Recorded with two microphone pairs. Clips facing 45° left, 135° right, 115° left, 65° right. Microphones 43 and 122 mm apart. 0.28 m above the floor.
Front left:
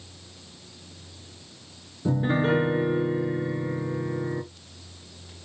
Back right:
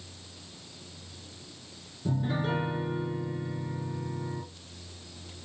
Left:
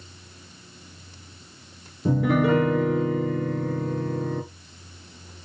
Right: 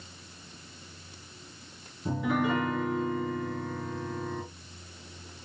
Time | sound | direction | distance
2.0 | a piano | 90° left | 0.8 m